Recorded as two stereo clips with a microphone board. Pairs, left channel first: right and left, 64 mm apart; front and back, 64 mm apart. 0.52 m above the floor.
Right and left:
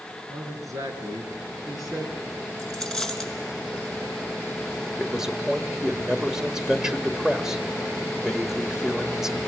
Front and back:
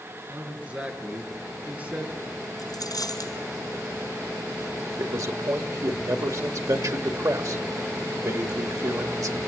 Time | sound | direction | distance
0.3 | a man speaking | 115° left | 5.5 m
2.6 | a dropped coin | 5° right | 3.5 m
5.0 | a man speaking | 170° left | 2.0 m